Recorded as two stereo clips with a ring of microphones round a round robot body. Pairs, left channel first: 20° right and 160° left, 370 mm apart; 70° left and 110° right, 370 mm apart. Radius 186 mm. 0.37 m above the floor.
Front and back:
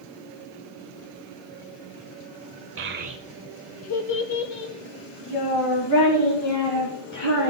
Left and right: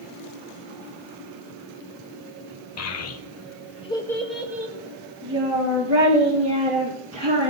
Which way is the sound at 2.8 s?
110° left.